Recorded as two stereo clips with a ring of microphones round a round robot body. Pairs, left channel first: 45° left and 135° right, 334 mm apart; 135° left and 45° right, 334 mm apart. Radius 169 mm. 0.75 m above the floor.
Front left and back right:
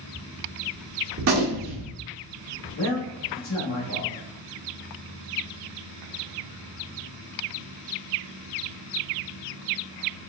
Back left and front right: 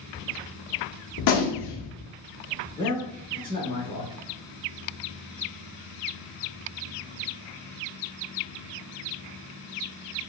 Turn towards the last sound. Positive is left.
turn(degrees=65)